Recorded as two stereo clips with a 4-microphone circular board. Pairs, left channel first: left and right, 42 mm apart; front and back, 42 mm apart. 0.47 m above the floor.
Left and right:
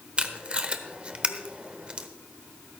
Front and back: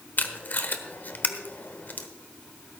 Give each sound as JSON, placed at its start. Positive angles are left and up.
{"t": 0.2, "sound": "tape being pulled", "azimuth_deg": -30, "distance_m": 0.9}